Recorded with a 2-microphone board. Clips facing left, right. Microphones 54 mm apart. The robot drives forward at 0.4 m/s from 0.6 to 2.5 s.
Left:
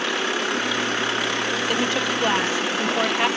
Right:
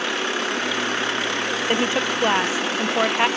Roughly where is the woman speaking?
Right.